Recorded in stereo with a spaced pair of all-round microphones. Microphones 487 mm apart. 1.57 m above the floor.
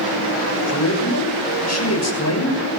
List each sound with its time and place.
0.7 s a man speaking: 35° left (ahead or behind), 6.5 m